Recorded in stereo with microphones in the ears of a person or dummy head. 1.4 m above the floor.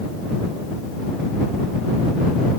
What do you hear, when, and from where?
Only background noise.